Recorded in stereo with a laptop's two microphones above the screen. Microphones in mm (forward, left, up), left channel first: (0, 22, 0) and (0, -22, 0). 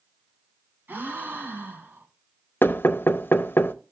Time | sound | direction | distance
0.9 | a gasp | 55° right (ahead or behind) | 1.8 m
2.6 | knocking | 55° left (ahead or behind) | 0.7 m